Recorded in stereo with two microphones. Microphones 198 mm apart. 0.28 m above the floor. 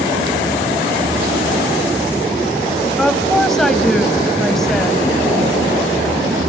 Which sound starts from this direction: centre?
A woman speaking, at 3.0 s.